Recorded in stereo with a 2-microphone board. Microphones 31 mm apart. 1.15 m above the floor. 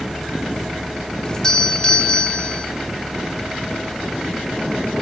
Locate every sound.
1.2 s a doorbell: 20° left (ahead or behind), 4.5 m